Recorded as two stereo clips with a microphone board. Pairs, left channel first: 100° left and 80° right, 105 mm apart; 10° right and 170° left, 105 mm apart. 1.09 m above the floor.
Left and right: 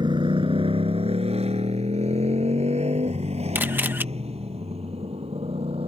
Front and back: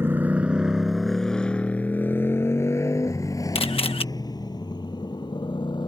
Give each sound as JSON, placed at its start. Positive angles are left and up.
{"t": 0.0, "sound": "a motorcycle", "azimuth_deg": -120}
{"t": 3.5, "sound": "a camera shutter", "azimuth_deg": -10}